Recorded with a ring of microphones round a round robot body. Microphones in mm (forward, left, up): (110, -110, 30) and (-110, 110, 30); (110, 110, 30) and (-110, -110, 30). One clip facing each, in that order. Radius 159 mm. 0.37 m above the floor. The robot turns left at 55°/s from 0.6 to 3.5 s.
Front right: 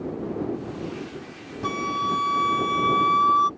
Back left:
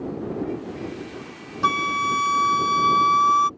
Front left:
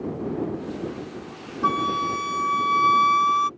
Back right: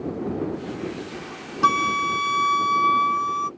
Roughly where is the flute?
Behind.